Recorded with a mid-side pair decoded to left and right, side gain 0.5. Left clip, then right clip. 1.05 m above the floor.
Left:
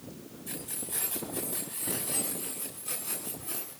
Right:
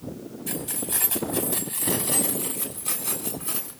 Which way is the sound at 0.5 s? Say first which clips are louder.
Right 9 dB; 60° right.